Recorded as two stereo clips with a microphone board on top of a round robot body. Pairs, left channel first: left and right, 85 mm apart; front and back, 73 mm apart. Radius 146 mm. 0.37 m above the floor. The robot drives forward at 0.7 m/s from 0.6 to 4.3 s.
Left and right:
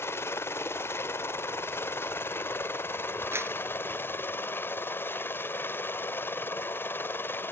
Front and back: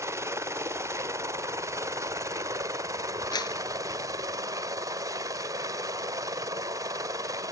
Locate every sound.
0.0 s a helicopter: 140° left; by 7.5 s 150° left
3.3 s a clap: 25° right; by 3.5 s 30° right